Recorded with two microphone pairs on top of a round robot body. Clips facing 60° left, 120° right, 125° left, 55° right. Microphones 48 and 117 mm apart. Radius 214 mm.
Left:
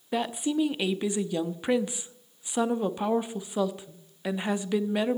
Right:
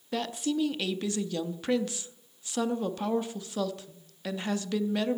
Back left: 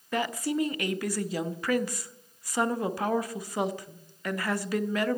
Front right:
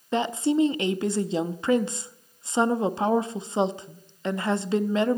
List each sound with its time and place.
0.1 s a woman speaking: 15° right, 1.0 m